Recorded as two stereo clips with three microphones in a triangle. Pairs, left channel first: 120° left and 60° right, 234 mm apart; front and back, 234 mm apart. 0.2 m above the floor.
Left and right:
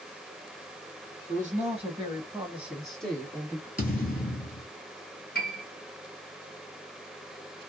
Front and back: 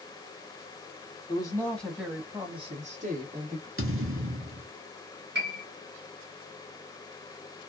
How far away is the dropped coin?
I don't hear a dropped coin.